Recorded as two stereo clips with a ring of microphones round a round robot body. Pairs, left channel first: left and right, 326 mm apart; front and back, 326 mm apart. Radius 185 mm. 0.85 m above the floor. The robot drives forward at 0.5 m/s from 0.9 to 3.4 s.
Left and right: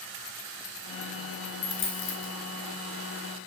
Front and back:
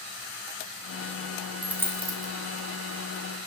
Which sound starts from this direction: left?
A dropped coin, at 1.6 s.